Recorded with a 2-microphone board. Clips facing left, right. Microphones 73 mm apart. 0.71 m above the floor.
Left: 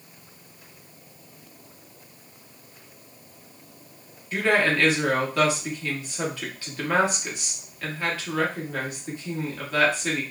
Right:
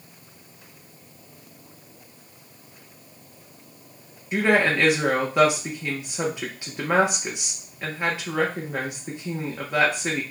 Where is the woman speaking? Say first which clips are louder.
Right 2 dB; 20° right (ahead or behind), 1.1 m.